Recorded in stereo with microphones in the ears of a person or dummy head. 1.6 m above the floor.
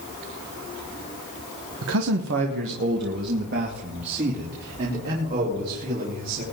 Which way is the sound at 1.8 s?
75° right (ahead or behind).